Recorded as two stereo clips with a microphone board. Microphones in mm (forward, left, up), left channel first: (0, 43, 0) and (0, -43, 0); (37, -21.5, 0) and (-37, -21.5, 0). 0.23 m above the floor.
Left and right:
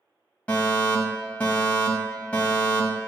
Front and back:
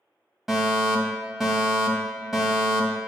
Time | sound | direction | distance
0.5 | a fire alarm | 105° left | 1.9 m